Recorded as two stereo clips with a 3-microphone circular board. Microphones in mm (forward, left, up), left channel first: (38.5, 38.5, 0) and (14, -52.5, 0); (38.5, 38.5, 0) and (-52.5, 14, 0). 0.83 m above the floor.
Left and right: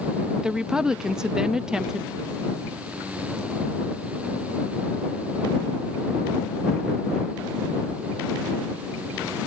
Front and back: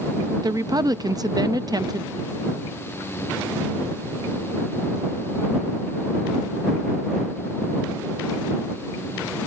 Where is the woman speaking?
175° left.